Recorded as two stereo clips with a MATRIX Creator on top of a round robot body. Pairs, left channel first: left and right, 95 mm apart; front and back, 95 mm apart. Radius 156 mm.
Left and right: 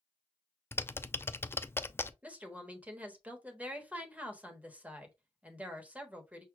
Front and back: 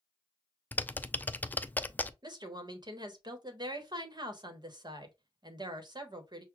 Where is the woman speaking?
160° right, 1.2 m.